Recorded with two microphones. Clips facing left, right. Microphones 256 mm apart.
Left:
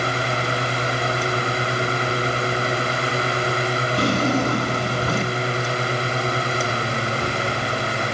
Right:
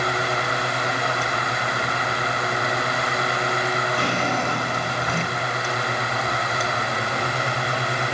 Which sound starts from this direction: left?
A drawer, at 4.0 s.